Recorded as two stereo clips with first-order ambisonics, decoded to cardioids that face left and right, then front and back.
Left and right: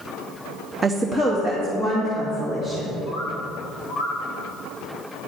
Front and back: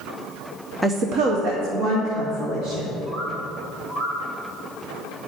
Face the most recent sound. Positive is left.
turn(degrees=130)